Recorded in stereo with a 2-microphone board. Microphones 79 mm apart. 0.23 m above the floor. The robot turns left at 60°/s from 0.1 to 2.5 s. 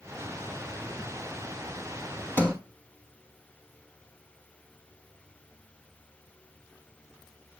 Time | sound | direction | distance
2.4 | a sliding door | 20° left (ahead or behind) | 0.9 m